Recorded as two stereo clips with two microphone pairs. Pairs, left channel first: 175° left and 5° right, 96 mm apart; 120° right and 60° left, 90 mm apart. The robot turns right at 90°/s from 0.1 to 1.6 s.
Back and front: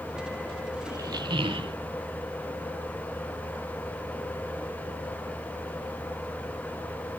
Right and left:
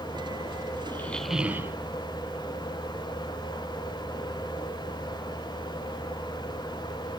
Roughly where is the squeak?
Ahead right.